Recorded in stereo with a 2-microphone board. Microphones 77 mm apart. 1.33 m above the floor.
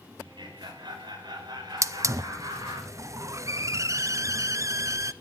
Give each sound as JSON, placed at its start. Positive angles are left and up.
{"t": 0.2, "sound": "laughter", "side_deg": -80, "distance_m": 5.5}
{"t": 1.8, "sound": "a hiss", "side_deg": -40, "distance_m": 0.5}